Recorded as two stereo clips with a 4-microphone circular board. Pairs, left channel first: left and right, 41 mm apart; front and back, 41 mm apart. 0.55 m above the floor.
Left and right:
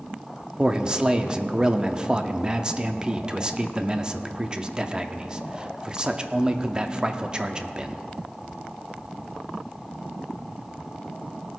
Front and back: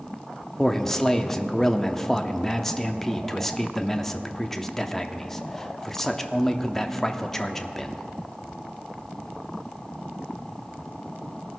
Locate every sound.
0.6 s a man speaking: 75° right, 0.6 m